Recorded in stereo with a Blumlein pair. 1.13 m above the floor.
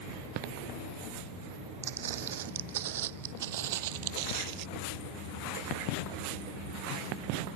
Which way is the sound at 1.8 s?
60° right.